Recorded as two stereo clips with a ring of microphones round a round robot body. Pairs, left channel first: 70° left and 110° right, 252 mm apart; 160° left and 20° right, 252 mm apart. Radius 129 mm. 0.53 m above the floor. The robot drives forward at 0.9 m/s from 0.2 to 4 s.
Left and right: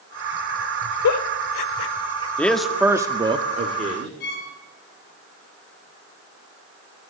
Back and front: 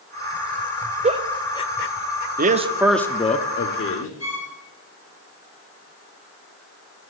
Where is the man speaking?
10° right, 0.8 m; by 4.1 s 175° right, 1.2 m.